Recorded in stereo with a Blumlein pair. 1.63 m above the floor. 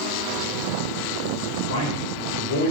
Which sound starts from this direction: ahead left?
A man speaking, at 1.7 s.